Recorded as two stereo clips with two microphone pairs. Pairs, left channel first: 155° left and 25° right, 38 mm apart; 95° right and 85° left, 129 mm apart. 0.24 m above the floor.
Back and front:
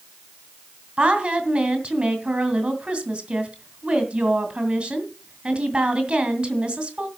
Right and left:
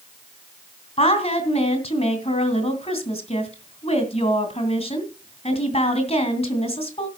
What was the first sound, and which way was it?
A woman speaking, 80° right.